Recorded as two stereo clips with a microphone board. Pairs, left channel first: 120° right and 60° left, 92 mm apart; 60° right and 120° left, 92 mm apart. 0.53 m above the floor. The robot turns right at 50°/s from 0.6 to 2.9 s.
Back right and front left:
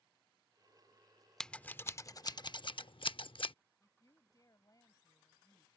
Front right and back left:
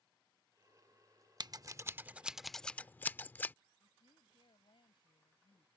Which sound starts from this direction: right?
A woman speaking, at 3.8 s.